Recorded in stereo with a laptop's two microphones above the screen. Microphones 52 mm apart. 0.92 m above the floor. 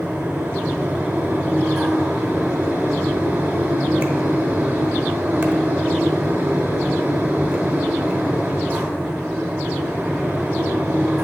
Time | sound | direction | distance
0.0 | a fan | 45° right (ahead or behind) | 0.9 m